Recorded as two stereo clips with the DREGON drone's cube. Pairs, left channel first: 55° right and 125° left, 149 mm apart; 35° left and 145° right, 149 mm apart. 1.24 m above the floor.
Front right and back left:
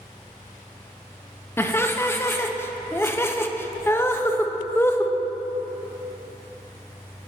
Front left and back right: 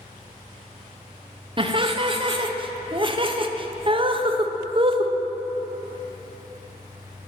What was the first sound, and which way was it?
Laughter, 120° right.